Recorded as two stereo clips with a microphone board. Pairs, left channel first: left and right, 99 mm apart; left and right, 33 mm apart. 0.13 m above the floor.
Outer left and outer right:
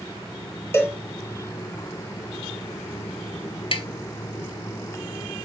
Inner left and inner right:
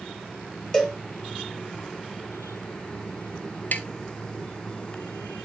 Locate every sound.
0.7 s a cowbell: 25° left (ahead or behind), 2.5 m
3.7 s tapping: 60° left (ahead or behind), 1.0 m